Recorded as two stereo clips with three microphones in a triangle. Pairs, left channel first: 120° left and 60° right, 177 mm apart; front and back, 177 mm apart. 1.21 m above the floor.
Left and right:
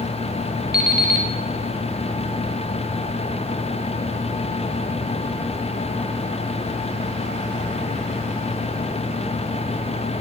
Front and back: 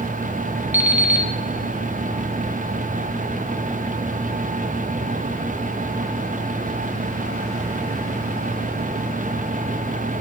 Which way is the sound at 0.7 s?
100° left.